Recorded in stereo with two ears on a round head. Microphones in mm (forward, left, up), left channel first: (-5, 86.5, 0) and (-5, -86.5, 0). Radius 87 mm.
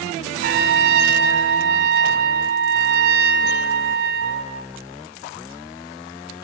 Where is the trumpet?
55° right (ahead or behind), 0.6 m.